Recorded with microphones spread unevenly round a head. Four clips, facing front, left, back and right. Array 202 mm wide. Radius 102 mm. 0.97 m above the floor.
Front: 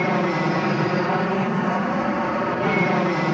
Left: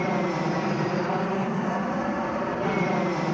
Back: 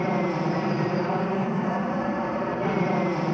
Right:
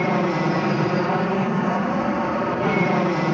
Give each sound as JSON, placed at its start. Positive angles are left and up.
{"t": 0.0, "sound": "an aircraft", "azimuth_deg": -55}